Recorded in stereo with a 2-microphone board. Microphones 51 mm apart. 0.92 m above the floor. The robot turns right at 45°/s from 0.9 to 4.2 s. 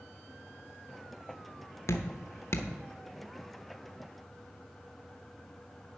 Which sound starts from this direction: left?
Dripping, at 1.9 s.